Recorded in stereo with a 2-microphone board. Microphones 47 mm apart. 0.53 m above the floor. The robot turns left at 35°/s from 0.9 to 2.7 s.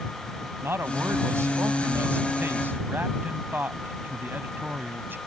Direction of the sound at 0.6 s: 70° right.